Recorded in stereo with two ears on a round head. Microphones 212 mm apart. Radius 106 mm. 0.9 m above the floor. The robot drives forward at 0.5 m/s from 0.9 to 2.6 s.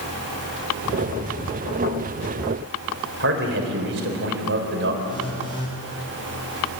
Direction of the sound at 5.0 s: 20° left (ahead or behind).